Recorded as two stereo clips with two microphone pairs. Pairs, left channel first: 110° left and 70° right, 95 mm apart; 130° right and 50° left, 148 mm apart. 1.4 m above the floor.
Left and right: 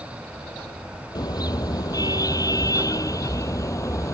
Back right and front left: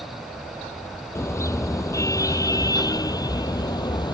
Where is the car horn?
160° left; by 4.1 s 170° left.